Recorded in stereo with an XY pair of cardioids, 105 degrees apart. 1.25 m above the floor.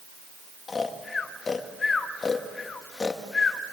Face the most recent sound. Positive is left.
turn(degrees=30)